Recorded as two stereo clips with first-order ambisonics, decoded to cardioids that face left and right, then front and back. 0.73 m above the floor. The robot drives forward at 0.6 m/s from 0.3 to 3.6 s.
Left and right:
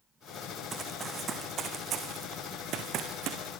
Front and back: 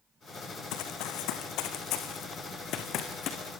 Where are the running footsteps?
20° right, 3 m; by 3.5 s 55° right, 3.5 m.